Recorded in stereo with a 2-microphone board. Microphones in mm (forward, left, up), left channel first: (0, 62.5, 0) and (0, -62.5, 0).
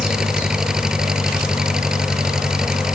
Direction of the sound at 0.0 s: 5° right (ahead or behind).